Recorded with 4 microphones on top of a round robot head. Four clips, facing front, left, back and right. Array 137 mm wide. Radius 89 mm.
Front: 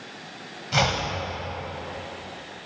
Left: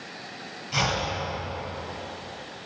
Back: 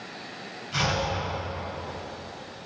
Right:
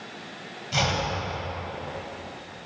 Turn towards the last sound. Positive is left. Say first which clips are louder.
# right 1 dB, front 3 dB
turn(degrees=-10)